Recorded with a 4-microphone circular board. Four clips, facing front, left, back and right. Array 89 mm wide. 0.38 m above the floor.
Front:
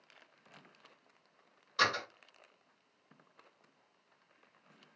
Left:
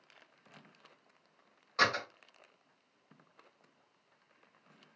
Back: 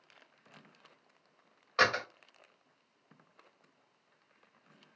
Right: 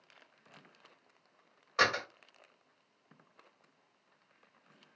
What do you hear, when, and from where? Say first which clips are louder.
1.8 s a door slam: right 1 dB, back 3 dB; 155° right, 1.3 m